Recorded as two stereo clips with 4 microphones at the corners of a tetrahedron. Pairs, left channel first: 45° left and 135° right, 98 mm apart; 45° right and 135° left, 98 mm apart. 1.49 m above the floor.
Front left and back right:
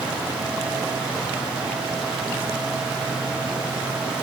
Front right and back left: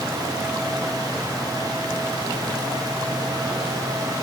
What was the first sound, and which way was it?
Only background noise.